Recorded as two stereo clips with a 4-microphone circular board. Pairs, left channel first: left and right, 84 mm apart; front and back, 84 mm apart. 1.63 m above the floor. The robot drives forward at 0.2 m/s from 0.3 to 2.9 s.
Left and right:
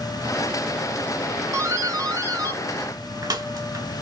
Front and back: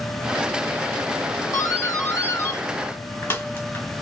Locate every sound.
1.5 s a doorbell: 50° right, 1.2 m; by 3.9 s 60° right, 1.0 m